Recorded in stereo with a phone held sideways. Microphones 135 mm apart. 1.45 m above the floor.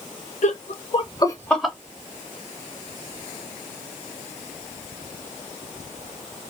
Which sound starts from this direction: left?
Laughter, at 0.4 s.